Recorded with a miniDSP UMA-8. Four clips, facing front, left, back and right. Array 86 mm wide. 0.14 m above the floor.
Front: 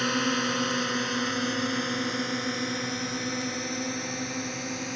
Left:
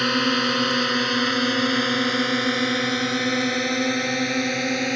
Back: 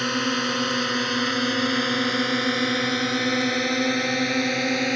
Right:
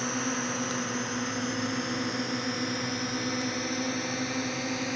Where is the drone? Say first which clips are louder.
Left 9 dB, back 2 dB; 100° left; by 5.0 s 140° left.